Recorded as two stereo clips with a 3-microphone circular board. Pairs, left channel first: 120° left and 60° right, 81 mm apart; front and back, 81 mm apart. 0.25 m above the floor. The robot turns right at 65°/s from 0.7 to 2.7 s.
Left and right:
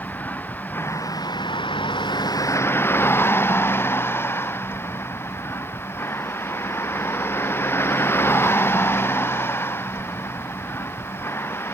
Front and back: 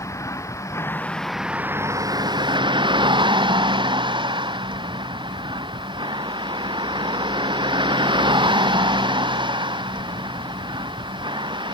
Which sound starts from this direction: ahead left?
A vehicle, at 0.0 s.